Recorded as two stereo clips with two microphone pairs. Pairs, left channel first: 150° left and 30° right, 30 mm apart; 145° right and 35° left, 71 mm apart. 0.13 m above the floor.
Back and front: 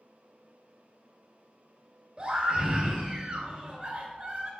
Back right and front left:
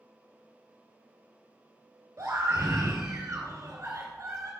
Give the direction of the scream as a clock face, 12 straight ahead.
11 o'clock.